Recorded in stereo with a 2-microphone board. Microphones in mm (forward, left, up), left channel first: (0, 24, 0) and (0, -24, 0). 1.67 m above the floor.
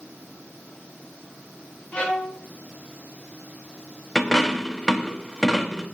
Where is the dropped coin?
10° left (ahead or behind), 1.0 m.